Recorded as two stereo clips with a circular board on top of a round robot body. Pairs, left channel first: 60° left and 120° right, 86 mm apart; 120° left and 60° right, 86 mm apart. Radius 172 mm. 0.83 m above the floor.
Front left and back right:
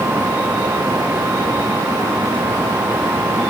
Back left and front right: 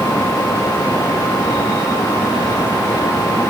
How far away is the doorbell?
I don't hear a doorbell.